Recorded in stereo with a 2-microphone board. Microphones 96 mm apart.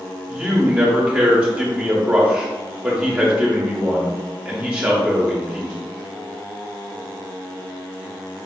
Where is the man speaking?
15° right (ahead or behind), 1.1 m.